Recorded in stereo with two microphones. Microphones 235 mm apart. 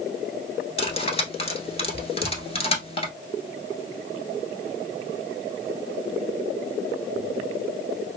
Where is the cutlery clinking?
25° left (ahead or behind), 1.0 m.